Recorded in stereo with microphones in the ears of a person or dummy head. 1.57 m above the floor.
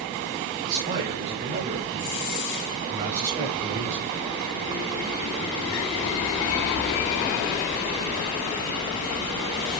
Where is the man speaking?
40° right (ahead or behind), 6.5 m; by 4.1 s 30° right (ahead or behind), 4.5 m.